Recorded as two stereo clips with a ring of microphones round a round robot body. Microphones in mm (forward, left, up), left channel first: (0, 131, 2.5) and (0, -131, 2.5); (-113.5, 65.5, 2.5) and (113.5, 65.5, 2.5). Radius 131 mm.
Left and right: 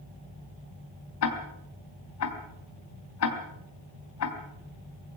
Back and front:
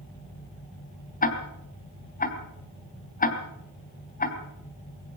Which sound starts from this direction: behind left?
Ticking, at 1.2 s.